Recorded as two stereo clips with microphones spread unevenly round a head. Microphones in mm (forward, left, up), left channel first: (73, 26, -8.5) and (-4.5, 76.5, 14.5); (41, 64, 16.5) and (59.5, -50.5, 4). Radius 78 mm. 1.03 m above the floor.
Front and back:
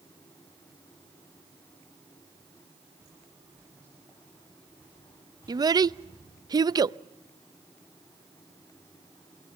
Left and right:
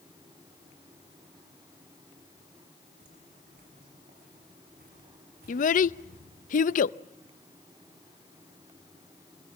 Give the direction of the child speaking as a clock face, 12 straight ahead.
9 o'clock.